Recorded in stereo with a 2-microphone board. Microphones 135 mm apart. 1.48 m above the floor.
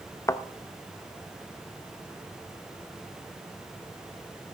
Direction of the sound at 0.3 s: 20° left (ahead or behind).